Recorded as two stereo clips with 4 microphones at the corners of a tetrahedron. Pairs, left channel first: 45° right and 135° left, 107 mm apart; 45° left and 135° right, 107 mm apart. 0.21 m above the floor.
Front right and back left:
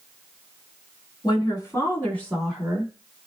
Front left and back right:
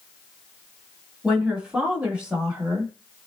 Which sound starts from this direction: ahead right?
A woman speaking, at 1.2 s.